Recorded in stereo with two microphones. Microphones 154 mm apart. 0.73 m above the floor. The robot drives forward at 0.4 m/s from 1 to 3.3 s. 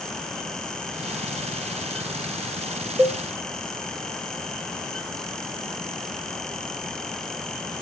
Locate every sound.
3.0 s a cowbell: 15° right (ahead or behind), 0.7 m; by 3.2 s 10° right (ahead or behind), 0.7 m